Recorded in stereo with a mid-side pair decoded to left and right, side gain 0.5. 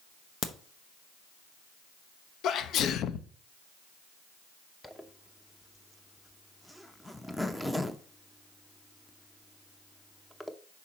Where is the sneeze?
65° left, 0.6 m.